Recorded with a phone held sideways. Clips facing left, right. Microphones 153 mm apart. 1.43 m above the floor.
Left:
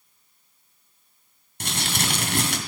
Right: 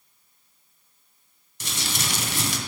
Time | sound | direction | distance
1.6 | crumpling | 60° left (ahead or behind) | 2.5 m